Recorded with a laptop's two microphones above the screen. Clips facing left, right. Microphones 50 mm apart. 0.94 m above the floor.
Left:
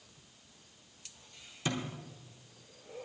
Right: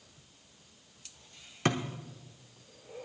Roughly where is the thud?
Right.